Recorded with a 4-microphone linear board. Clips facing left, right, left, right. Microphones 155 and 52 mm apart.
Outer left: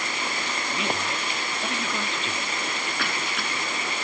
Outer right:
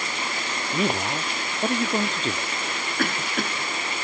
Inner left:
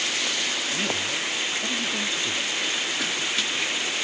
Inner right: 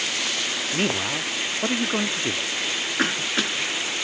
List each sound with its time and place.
0.7 s a man speaking: 40° right (ahead or behind)
3.0 s a cough: 50° right (ahead or behind)